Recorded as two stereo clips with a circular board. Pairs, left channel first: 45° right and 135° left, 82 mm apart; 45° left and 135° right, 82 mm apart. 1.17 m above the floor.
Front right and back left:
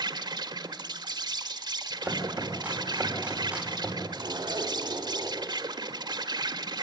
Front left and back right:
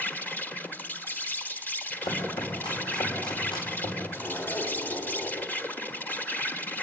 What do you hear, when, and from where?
0.0 s an insect: 110° left, 1.4 m
2.0 s chopping: 60° left, 4.5 m
4.1 s a zipper: 95° left, 2.5 m